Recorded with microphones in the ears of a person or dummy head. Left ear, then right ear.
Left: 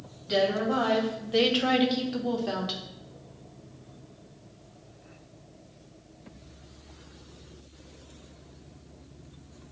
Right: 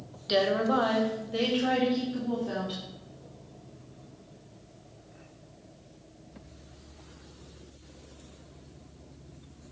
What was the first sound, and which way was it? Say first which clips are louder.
A woman speaking: even; 30° right (ahead or behind).